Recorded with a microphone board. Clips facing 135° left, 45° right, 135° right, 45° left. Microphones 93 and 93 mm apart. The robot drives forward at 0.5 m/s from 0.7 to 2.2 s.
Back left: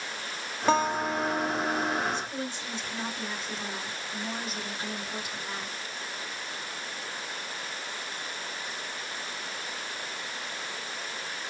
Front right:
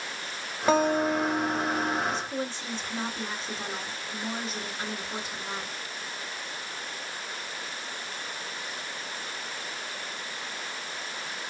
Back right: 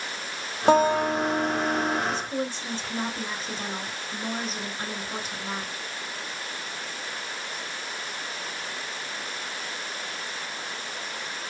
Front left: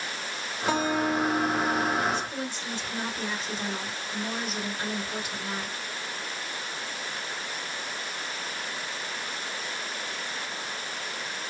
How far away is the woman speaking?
About 2.5 m.